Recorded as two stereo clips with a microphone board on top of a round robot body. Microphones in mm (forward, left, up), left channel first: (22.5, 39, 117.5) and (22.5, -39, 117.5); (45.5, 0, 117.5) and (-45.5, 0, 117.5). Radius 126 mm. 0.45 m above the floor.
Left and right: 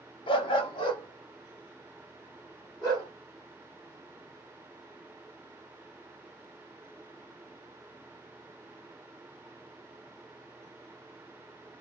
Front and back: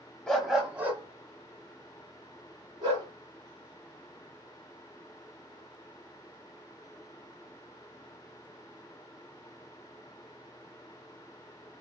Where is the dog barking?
80° left, 0.7 m; by 3.1 s 135° left, 2 m.